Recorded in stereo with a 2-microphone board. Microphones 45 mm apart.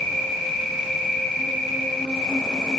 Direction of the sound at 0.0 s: 15° left (ahead or behind).